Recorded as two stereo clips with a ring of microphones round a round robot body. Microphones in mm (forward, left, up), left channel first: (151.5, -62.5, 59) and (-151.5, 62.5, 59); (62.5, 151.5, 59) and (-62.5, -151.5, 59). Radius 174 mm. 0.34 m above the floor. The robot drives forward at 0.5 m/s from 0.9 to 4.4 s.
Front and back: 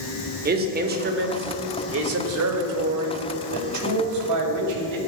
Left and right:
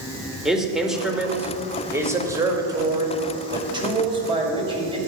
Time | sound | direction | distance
0.5 | a man speaking | 160° left | 1.6 m